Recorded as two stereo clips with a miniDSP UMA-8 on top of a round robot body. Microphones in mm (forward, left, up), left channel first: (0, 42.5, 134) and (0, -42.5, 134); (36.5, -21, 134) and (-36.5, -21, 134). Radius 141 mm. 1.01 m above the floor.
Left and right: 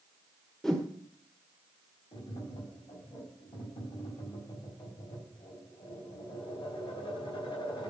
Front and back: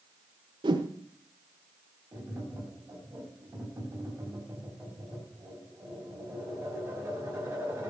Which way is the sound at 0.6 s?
175° left.